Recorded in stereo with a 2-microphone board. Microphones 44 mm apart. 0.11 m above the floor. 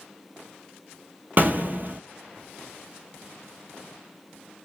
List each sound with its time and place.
1.4 s an explosion: 50° right (ahead or behind), 0.6 m